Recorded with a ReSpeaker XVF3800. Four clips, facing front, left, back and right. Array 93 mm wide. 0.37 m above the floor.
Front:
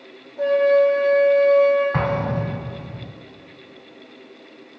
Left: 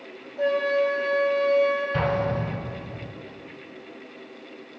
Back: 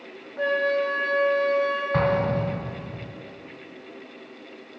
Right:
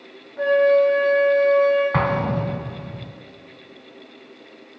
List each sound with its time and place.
0.4 s a flute: 140° right, 2.5 m
1.9 s an explosion: 80° right, 0.7 m